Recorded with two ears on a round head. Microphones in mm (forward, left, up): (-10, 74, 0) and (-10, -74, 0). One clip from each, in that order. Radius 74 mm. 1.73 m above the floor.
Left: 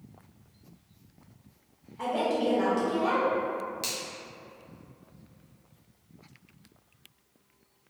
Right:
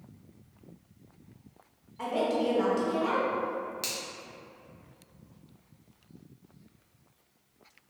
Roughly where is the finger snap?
Centre.